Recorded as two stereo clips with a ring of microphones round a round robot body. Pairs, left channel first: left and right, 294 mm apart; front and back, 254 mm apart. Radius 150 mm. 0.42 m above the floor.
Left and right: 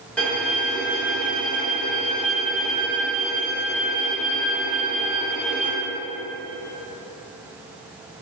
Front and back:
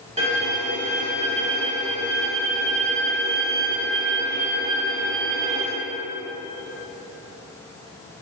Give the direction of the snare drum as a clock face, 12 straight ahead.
No snare drum in this recording.